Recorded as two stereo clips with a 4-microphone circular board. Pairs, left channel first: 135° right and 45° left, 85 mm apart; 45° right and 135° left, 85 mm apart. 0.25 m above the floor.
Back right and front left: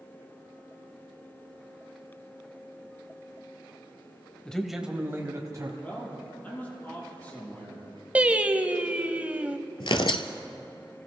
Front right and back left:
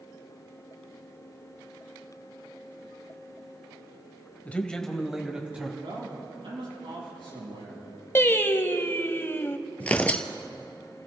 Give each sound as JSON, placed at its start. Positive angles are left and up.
{"t": 4.5, "sound": "a man speaking", "azimuth_deg": -75, "distance_m": 1.1}
{"t": 5.8, "sound": "a man speaking", "azimuth_deg": 155, "distance_m": 6.5}
{"t": 8.2, "sound": "singing", "azimuth_deg": -15, "distance_m": 0.7}
{"t": 9.8, "sound": "tearing paper", "azimuth_deg": -120, "distance_m": 0.8}